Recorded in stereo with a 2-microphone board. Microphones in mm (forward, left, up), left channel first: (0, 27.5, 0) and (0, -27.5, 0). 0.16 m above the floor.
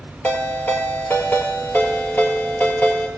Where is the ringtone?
30° left (ahead or behind), 2.5 m.